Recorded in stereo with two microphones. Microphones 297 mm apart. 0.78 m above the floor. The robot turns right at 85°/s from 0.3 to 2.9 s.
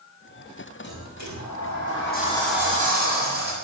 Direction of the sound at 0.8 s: 35° left.